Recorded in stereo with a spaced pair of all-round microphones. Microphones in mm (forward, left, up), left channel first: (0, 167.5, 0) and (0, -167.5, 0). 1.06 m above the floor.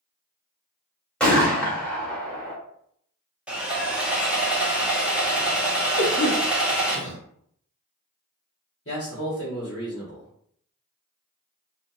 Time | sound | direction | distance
1.2 | a gunshot | 5° left (ahead or behind) | 0.9 m
3.5 | sawing | 5° right (ahead or behind) | 0.7 m
6.0 | a cough | 65° right (ahead or behind) | 1.2 m
8.8 | a man speaking | 45° left (ahead or behind) | 1.0 m